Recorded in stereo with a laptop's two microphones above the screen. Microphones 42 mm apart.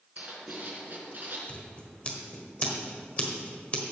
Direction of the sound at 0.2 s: 55° right (ahead or behind).